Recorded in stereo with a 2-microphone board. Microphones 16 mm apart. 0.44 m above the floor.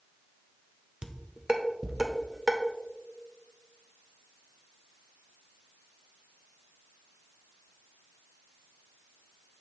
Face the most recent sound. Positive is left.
turn(degrees=-40)  # may be behind; listen again after turning